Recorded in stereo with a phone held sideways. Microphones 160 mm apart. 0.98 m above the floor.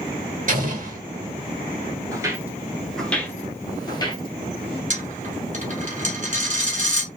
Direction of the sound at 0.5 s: 55° right (ahead or behind).